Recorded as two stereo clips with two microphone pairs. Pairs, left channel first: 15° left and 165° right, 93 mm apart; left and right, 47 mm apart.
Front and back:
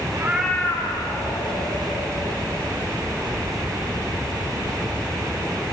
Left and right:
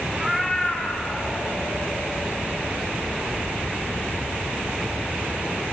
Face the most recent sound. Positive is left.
turn(degrees=30)